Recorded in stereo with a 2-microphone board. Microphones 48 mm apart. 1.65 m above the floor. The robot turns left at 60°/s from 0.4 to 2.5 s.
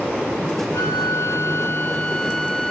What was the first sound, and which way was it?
A flute, 90° left.